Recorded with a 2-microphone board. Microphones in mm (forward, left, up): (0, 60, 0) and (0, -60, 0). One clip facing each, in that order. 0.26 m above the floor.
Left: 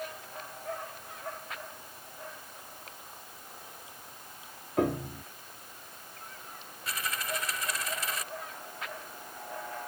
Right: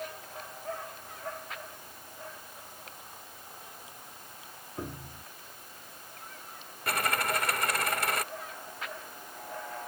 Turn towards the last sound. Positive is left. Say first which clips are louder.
# right 6 dB
turn(degrees=-55)  # may be behind; listen again after turning